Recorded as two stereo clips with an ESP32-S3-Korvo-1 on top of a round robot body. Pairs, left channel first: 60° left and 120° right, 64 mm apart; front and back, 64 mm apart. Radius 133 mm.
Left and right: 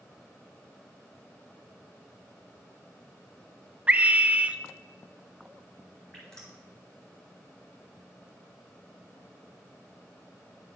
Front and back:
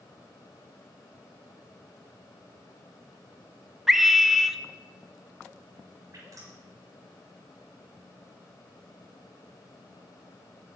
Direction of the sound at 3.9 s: 100° right.